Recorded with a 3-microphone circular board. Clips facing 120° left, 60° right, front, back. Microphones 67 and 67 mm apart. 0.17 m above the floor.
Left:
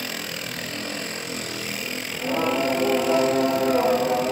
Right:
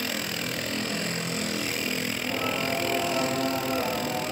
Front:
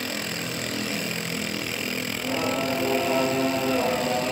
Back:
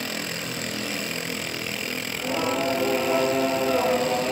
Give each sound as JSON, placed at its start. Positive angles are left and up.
{"t": 2.1, "sound": "singing", "azimuth_deg": 100, "distance_m": 2.5}